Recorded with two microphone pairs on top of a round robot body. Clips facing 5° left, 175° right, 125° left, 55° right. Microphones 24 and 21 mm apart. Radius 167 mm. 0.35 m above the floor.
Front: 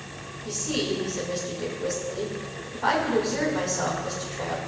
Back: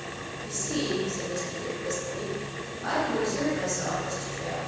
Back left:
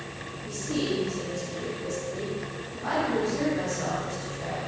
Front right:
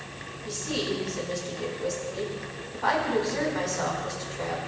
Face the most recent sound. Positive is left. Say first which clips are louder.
# front 3 dB, back left 1 dB
turn(degrees=-15)